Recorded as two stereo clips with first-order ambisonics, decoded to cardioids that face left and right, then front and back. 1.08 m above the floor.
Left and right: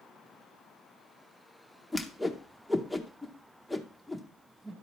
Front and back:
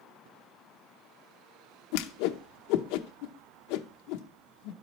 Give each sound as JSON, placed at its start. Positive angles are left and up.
{"t": 1.9, "sound": "a whoosh", "azimuth_deg": 5, "distance_m": 0.7}